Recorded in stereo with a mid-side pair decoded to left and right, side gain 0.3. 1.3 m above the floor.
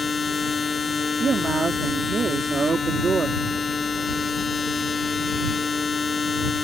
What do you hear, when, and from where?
0.0 s a machine running: 55° left
1.2 s a man speaking: 55° right